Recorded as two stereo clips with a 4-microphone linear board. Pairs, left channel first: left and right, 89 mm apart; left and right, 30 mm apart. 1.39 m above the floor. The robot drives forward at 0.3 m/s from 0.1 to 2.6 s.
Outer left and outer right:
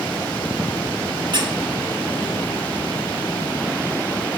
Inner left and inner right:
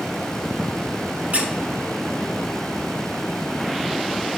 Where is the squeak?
60° right (ahead or behind), 1.1 m.